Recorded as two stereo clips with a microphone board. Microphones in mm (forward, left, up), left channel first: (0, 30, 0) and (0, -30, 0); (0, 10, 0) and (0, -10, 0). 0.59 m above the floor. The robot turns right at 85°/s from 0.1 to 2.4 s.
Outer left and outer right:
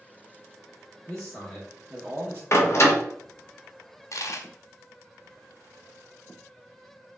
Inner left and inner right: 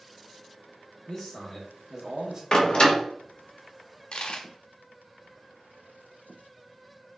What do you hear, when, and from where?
1.1 s a man speaking: 145° left, 0.7 m; by 2.4 s 105° right, 0.7 m
2.5 s a door slam: 50° left (ahead or behind), 0.9 m
4.1 s a dropped coin: 60° left (ahead or behind), 0.6 m